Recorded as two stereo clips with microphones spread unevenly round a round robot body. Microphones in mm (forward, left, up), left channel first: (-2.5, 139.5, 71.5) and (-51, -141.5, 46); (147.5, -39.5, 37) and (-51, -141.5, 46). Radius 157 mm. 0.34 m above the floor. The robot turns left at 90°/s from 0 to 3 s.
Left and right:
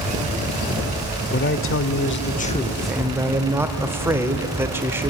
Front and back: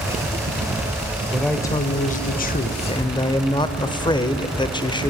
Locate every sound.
1.3 s a man speaking: 125° left, 1.3 m; by 5.1 s 30° right, 1.3 m